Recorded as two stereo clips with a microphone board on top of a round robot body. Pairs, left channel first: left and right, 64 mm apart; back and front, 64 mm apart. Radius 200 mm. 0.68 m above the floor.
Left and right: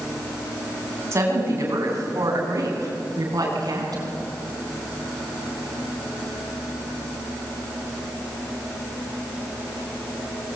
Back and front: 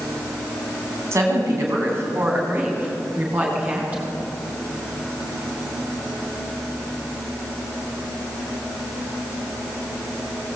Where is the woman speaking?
45° right, 7 m; by 4.2 s 70° right, 8 m.